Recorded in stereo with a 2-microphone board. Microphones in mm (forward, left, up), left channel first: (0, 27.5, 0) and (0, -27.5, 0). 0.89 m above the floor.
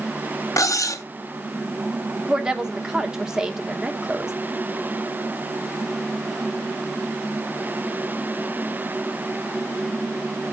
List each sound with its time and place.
0.6 s cutlery clinking: 85° left, 0.7 m
2.3 s a woman speaking: 10° right (ahead or behind), 1.0 m